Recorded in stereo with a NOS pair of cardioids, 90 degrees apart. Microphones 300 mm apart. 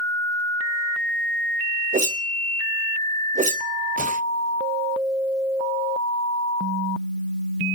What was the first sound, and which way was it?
A whoosh, 25° right.